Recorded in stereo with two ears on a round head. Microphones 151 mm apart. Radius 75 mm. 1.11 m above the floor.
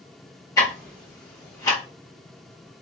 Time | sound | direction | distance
0.6 | ticking | 20° left (ahead or behind) | 1.7 m